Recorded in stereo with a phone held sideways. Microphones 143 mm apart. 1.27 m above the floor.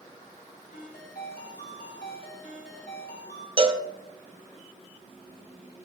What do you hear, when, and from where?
0.7 s a ringtone: 75° left (ahead or behind), 2 m
3.6 s a cowbell: 35° right (ahead or behind), 0.8 m